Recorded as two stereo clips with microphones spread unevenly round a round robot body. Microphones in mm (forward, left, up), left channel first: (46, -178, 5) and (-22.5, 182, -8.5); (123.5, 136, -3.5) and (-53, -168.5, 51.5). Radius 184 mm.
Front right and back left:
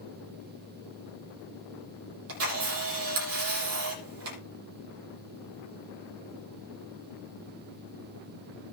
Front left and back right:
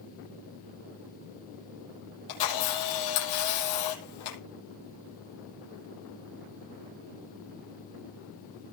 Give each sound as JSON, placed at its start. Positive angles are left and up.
{"t": 2.3, "sound": "a camera shutter", "azimuth_deg": 50, "distance_m": 7.0}